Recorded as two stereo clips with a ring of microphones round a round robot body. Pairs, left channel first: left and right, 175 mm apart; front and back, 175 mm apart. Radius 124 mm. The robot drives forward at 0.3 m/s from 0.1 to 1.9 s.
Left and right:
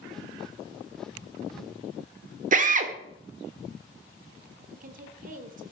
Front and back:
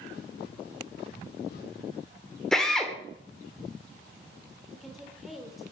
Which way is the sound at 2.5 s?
85° right.